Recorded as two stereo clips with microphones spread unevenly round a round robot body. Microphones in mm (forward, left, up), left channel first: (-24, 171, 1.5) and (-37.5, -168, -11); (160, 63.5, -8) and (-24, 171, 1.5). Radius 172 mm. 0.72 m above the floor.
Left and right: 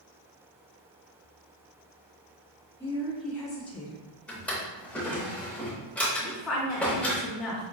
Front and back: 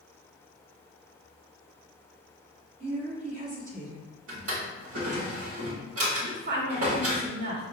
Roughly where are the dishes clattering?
No dishes clattering in this recording.